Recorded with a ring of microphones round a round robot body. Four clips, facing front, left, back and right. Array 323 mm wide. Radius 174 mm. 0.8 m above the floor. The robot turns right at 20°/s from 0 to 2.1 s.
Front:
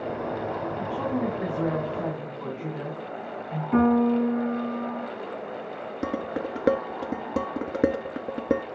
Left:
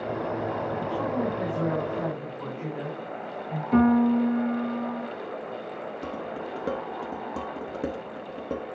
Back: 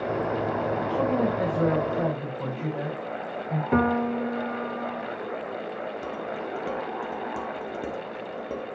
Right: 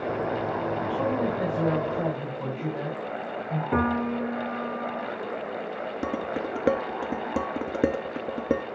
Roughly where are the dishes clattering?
Ahead right.